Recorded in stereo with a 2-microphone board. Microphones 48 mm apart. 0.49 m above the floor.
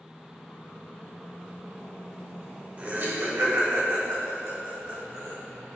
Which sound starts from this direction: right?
Laughter, at 2.8 s.